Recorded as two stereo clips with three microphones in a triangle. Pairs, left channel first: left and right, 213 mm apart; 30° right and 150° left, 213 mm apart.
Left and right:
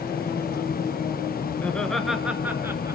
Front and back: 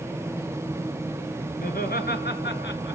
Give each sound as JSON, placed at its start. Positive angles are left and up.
{"t": 1.6, "sound": "laughter", "azimuth_deg": 10, "distance_m": 3.0}